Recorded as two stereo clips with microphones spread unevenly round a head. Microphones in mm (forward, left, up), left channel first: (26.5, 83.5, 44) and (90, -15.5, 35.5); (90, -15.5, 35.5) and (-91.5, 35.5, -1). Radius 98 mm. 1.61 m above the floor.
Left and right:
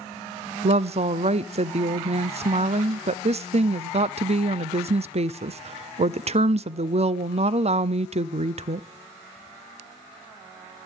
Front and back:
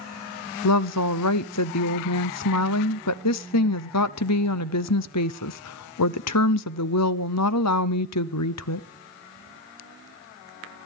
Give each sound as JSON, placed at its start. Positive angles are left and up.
{"t": 0.6, "sound": "a woman speaking", "azimuth_deg": -25, "distance_m": 0.6}